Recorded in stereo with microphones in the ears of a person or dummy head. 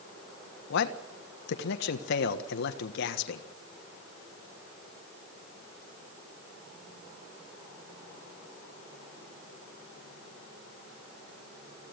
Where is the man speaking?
70° left (ahead or behind), 1.3 m.